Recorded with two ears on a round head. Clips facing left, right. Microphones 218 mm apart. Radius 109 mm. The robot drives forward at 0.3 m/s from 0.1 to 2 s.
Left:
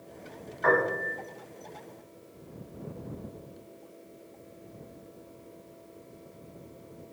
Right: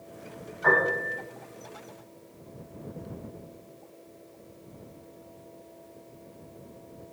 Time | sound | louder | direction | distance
0.6 | a piano | left 1 dB | 85° left | 1.9 m